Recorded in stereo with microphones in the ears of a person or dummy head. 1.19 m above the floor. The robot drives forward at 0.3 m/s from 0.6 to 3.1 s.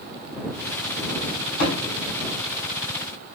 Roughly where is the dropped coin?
No dropped coin in this recording.